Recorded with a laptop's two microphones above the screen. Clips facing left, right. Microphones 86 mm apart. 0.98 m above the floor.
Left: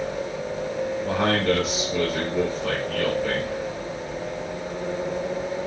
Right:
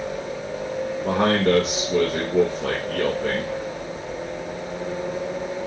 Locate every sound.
1.0 s a man speaking: 65° right (ahead or behind), 1.3 m